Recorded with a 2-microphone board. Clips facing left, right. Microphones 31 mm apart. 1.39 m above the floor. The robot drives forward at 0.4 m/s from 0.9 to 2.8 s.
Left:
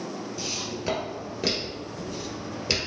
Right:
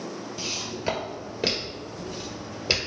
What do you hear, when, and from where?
0.4 s footsteps: 15° right (ahead or behind), 1.7 m; by 2.8 s 10° right (ahead or behind), 1.7 m